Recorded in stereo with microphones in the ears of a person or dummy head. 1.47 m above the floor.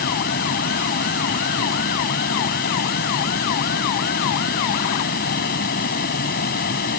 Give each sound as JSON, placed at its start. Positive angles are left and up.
{"t": 0.0, "sound": "a fan", "side_deg": 50}